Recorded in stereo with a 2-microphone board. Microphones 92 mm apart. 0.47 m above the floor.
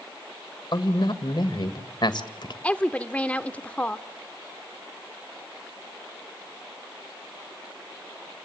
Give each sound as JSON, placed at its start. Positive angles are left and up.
{"t": 0.7, "sound": "a man speaking", "side_deg": 60, "distance_m": 1.7}
{"t": 2.6, "sound": "a woman speaking", "side_deg": 15, "distance_m": 1.0}